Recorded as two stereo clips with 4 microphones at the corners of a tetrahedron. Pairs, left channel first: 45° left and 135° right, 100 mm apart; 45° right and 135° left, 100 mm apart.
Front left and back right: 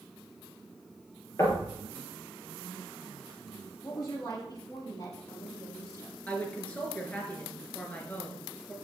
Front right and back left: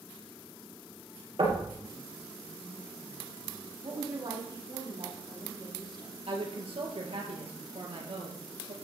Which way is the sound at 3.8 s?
95° left.